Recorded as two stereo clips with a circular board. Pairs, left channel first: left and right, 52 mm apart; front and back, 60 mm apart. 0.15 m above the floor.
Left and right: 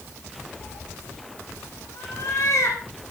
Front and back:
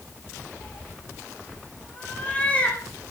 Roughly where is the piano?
No piano in this recording.